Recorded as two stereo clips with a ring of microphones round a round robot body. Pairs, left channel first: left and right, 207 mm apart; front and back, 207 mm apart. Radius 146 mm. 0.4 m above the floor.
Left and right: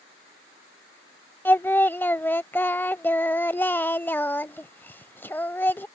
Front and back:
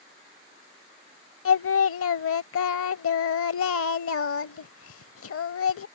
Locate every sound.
1.4 s singing: 10° left